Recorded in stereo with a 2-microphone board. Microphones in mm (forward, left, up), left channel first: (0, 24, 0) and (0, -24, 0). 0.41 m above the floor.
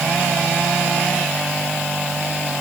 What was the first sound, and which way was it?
Only background noise.